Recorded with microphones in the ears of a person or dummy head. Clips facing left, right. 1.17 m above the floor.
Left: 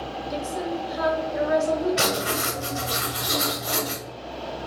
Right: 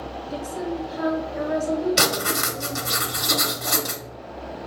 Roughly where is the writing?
Right.